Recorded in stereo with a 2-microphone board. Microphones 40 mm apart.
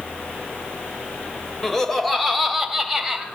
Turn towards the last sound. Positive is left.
turn(degrees=-10)  # may be behind; listen again after turning